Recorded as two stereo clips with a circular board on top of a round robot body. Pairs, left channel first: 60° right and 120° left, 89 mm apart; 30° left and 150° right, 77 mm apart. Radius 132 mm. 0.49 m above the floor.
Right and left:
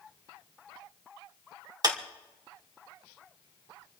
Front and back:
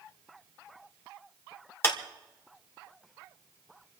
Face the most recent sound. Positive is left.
turn(degrees=85)